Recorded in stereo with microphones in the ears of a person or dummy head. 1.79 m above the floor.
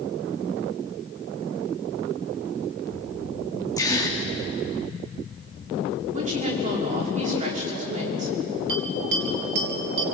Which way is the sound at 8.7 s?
70° right (ahead or behind).